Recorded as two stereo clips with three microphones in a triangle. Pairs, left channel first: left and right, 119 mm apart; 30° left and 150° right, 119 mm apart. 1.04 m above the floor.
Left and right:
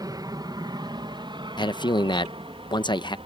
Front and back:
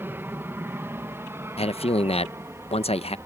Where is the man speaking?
50° left.